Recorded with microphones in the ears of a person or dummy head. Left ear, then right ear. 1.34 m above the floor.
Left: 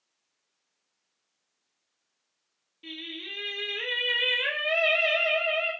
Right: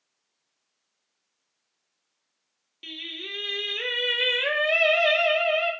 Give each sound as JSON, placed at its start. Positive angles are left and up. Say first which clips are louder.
{"t": 2.8, "sound": "singing", "louder": "right 3 dB", "side_deg": -75, "distance_m": 1.0}